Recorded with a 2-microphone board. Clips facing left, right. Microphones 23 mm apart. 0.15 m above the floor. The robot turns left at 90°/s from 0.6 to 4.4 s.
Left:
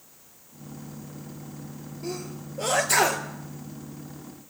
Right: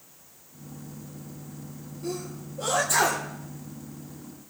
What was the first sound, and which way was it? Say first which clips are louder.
A sneeze: right 1 dB; 30° left (ahead or behind).